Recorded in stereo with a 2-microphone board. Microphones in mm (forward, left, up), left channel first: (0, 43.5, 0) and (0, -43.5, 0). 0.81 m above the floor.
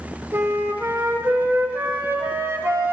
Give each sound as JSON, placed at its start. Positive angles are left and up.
{"t": 0.3, "sound": "a flute", "side_deg": -30, "distance_m": 0.7}